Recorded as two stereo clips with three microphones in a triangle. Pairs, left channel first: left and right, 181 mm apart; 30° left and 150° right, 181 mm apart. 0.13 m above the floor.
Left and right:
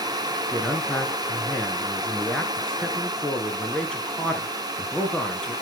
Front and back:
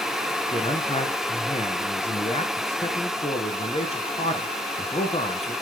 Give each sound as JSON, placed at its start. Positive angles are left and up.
{"t": 0.5, "sound": "a man speaking", "azimuth_deg": 10, "distance_m": 1.8}